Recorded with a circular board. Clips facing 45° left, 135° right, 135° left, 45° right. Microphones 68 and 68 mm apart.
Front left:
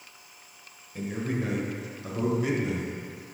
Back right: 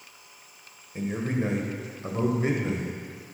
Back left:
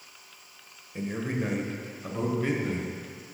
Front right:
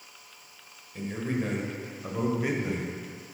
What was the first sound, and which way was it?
A man speaking, 175° right.